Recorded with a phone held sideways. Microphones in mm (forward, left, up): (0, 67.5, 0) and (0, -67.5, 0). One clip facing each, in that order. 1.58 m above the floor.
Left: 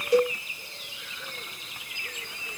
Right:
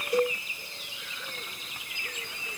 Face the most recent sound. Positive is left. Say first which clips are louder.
# left 4 dB
turn(degrees=75)  # may be behind; listen again after turning